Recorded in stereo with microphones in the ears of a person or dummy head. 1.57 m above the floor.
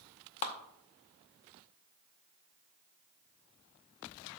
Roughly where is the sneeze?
I don't hear a sneeze.